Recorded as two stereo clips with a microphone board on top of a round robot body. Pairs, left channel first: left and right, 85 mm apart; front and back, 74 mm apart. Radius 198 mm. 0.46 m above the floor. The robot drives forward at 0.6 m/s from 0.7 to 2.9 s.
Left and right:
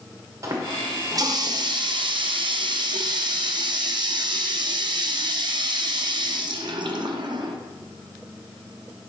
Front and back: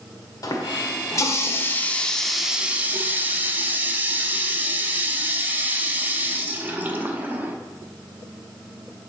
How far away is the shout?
No shout in this recording.